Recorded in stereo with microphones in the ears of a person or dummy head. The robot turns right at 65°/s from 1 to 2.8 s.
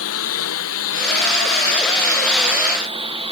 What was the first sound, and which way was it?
A lawn mower, 85° left.